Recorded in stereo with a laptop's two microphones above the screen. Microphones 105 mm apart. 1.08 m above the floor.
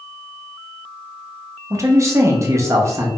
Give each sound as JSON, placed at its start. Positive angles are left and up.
{"t": 1.7, "sound": "a man speaking", "side_deg": -30, "distance_m": 1.0}